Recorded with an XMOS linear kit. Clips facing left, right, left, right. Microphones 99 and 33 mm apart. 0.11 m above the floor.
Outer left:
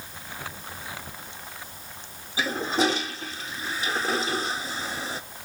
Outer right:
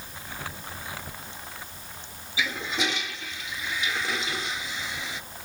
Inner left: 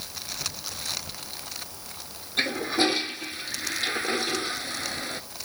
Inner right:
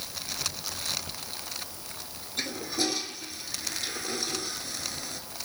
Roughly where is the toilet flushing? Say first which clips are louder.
Outer left 5 dB, inner left 7 dB; left.